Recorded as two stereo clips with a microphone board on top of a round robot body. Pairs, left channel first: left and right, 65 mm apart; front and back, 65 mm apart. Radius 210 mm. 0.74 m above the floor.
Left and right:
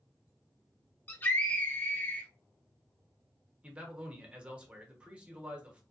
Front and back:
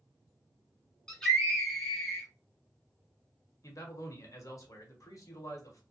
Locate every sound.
1.1 s a scream: 75° left, 1.1 m
3.6 s a man speaking: 20° right, 1.3 m